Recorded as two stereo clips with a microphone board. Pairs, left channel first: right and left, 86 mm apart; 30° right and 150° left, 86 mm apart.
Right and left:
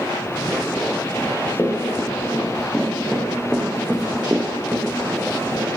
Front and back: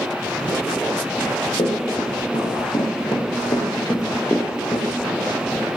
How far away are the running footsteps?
About 4.5 m.